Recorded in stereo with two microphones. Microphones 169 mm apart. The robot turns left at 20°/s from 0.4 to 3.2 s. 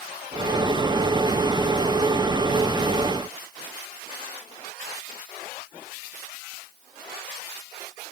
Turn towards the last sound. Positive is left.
No sound to turn to.